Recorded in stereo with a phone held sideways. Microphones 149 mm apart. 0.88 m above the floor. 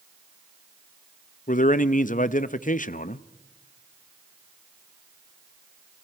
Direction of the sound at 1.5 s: 60° left (ahead or behind).